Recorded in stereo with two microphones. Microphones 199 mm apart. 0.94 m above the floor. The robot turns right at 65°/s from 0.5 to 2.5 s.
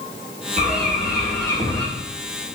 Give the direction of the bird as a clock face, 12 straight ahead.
2 o'clock.